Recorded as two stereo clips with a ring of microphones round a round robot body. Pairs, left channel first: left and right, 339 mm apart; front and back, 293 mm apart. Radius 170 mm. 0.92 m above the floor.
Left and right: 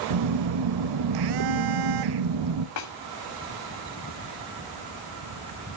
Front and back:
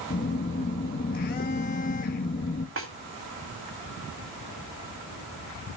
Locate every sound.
0.1 s a phone buzzing: 65° right, 0.7 m
2.8 s a snare drum: 135° left, 2.0 m